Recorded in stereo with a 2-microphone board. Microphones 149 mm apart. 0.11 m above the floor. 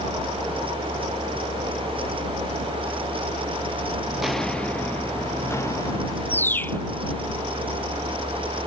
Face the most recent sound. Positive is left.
turn(degrees=15)  # may be behind; listen again after turning